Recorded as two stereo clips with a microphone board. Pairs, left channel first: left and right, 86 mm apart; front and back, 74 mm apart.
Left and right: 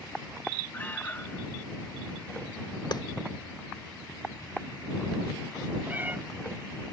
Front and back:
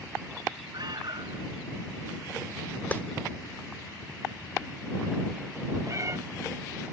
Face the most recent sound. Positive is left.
turn(degrees=-150)